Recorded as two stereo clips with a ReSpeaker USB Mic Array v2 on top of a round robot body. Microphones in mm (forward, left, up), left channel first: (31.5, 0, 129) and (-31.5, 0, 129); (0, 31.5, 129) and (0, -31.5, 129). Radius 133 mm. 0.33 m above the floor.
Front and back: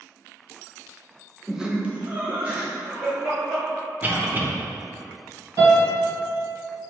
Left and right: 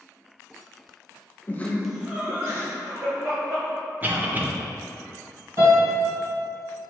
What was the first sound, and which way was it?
Laughter, 100° left.